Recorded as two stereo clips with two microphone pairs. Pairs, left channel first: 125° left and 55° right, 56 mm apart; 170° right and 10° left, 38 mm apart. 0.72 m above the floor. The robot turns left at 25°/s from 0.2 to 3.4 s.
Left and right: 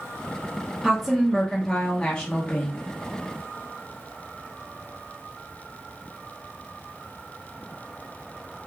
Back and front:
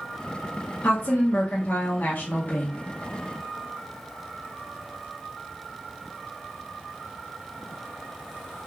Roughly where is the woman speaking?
Behind right.